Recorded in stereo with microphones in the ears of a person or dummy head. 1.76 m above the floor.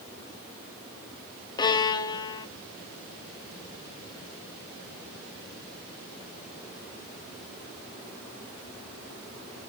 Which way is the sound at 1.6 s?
20° left (ahead or behind).